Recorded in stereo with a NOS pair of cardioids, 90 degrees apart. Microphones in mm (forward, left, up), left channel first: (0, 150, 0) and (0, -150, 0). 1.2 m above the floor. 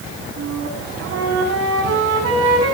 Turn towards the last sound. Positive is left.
turn(degrees=-55)